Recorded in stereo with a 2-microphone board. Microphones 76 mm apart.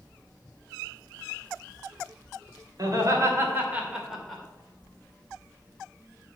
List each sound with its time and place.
2.8 s laughter: 50° right (ahead or behind), 2.5 m; by 4.4 s 5° left (ahead or behind), 2.5 m